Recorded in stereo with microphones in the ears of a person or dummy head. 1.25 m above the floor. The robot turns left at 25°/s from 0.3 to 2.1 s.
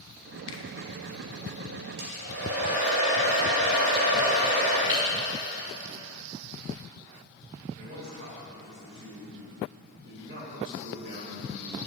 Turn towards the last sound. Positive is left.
turn(degrees=-55)  # may be behind; listen again after turning